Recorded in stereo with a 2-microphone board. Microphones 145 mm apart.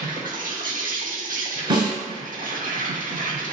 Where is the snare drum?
35° right (ahead or behind), 1.8 m.